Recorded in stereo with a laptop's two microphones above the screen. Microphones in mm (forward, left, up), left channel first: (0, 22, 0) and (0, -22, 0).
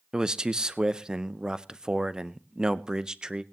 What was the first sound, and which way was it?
A man speaking, 15° right (ahead or behind).